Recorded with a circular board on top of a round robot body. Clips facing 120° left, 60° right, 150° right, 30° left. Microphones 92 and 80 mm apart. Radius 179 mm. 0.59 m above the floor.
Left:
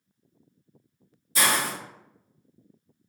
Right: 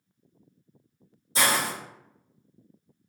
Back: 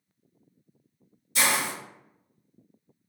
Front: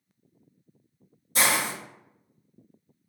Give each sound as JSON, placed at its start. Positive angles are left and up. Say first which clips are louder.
{"t": 1.4, "sound": "a hiss", "louder": "even, front 1 dB", "azimuth_deg": -5, "distance_m": 1.6}